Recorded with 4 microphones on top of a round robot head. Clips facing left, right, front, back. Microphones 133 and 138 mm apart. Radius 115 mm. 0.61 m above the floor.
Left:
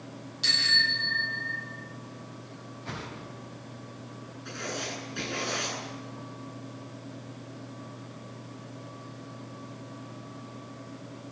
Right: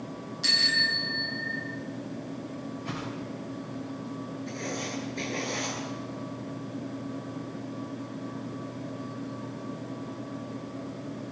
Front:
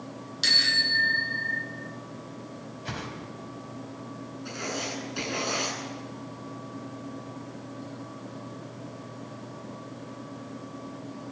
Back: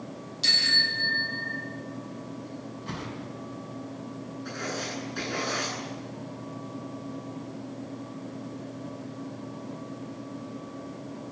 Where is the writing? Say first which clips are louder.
Left 1 dB, front 1 dB; 65° left, 9 m.